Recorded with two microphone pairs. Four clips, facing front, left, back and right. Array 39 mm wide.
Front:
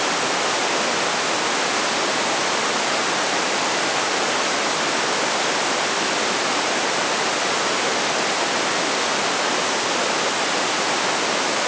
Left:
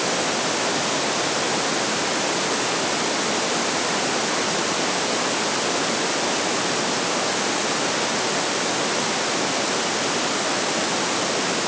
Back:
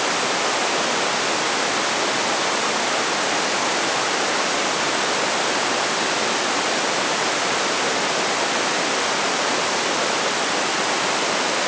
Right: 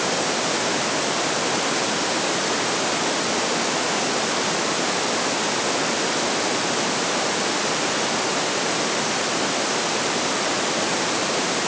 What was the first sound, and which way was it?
Only background noise.